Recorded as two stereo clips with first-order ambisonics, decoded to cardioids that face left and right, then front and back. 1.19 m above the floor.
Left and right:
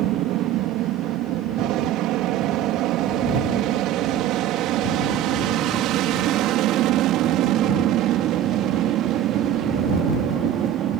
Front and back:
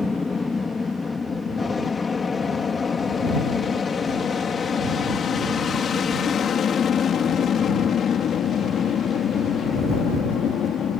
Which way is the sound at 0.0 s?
75° right.